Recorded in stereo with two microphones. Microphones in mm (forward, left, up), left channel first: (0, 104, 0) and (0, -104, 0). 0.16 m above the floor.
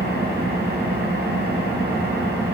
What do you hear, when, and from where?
0.0 s an engine running: 50° right (ahead or behind), 3 m